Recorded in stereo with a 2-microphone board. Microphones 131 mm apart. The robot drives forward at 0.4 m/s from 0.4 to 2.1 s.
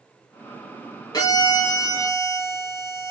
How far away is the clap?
I don't hear a clap.